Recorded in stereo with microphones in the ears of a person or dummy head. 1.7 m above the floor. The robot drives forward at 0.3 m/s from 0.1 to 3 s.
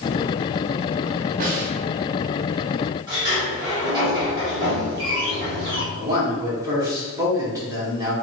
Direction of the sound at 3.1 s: 15° right (ahead or behind).